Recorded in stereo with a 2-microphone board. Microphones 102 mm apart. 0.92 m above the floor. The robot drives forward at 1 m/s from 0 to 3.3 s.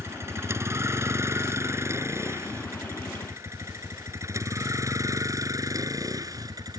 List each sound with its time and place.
0.0 s a vehicle: 25° right (ahead or behind); by 6.8 s 40° right (ahead or behind)